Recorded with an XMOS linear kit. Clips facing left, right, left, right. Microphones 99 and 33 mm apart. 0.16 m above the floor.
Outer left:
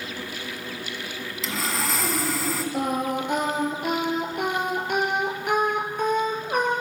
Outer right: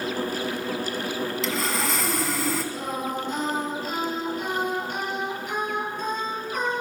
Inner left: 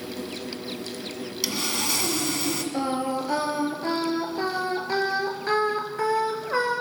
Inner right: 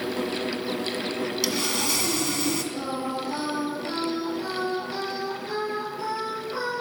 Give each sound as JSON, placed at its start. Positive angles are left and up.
{"t": 1.4, "sound": "sawing", "side_deg": 0, "distance_m": 1.4}
{"t": 2.7, "sound": "singing", "side_deg": 65, "distance_m": 2.0}